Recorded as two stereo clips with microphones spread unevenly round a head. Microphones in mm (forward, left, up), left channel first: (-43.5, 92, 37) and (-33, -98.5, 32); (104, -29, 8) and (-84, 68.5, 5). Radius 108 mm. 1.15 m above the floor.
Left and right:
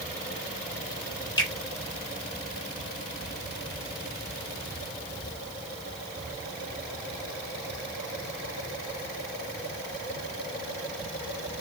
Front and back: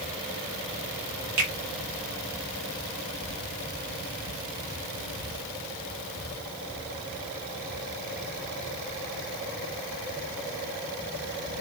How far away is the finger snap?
About 3 m.